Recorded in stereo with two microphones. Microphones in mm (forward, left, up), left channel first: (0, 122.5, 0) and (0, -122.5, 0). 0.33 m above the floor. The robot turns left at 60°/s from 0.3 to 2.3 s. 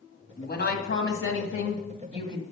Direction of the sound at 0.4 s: 140° left.